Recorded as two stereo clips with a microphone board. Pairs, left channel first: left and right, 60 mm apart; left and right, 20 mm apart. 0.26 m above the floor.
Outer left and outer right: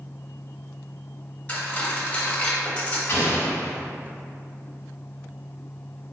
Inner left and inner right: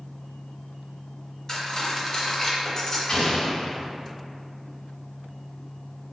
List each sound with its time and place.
1.5 s cutlery clinking: 25° left (ahead or behind), 0.7 m
3.1 s an explosion: 40° left (ahead or behind), 0.8 m